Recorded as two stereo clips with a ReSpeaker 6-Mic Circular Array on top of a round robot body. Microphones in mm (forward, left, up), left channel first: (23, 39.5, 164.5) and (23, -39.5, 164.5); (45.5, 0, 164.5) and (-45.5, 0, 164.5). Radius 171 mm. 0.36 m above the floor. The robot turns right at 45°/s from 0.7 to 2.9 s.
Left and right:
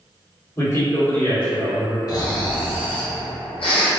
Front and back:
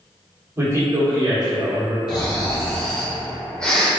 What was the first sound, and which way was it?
A man speaking, 130° left.